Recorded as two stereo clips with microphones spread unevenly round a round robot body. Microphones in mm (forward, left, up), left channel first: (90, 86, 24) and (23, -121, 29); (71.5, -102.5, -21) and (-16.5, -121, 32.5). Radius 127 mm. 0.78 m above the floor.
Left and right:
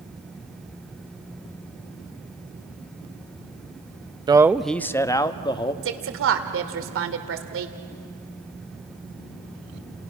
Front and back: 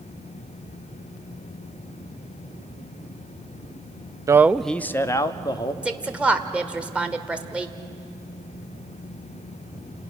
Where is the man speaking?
75° right, 0.5 m; by 5.7 s 5° left, 1.5 m.